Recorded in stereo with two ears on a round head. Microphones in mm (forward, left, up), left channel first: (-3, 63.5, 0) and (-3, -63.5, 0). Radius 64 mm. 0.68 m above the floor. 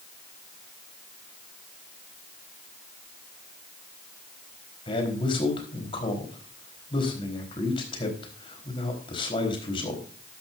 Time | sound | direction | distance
4.9 | a man speaking | 35° left (ahead or behind) | 4 m